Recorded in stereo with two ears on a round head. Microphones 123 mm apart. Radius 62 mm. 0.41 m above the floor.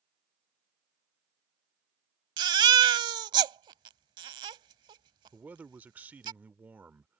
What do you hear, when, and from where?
2.4 s a baby crying: 35° right (ahead or behind)
5.3 s a man speaking: 10° right (ahead or behind)